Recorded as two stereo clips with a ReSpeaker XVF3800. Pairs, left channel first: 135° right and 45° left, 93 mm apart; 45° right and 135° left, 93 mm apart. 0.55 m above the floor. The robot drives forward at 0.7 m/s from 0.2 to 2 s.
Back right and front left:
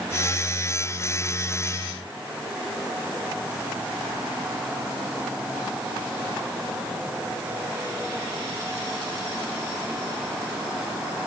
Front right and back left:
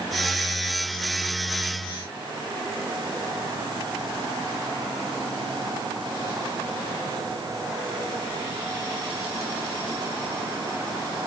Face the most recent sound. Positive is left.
No sound to turn to.